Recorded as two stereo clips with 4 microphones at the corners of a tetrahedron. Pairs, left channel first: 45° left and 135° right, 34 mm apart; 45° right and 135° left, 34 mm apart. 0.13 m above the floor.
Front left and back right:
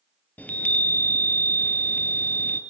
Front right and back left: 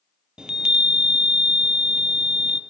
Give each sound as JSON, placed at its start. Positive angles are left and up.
{"t": 0.4, "sound": "a chime", "azimuth_deg": 70, "distance_m": 1.1}